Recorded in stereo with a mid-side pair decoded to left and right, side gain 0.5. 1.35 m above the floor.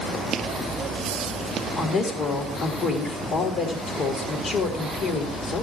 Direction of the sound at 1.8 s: 60° left.